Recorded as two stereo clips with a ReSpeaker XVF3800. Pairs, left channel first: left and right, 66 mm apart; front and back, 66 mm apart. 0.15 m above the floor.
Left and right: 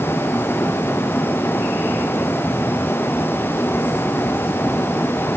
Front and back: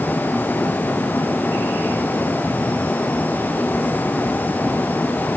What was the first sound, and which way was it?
Only background noise.